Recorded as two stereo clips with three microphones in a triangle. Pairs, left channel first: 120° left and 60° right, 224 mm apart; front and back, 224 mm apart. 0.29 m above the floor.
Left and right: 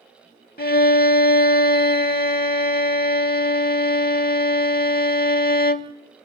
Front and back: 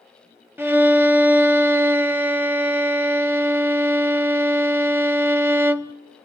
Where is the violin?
100° left, 0.6 m.